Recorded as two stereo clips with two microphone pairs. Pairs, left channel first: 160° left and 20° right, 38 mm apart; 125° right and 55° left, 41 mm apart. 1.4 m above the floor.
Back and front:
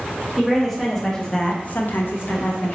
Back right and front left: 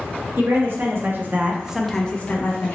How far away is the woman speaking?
About 1.3 m.